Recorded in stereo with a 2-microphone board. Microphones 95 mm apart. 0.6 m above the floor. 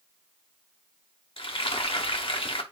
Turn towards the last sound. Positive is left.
turn(degrees=75)  # may be behind; listen again after turning